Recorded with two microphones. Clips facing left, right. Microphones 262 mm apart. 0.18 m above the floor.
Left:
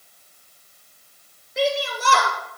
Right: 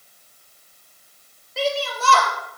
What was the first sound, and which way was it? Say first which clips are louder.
A shout: left 1 dB; 20° left (ahead or behind).